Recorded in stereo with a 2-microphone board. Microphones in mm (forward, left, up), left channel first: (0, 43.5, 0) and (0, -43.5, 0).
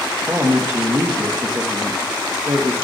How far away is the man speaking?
About 2 m.